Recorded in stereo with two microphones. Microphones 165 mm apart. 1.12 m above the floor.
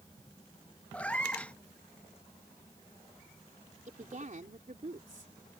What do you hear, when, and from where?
0.9 s a cat meowing: 10° left (ahead or behind)
3.9 s a woman speaking: 55° right (ahead or behind)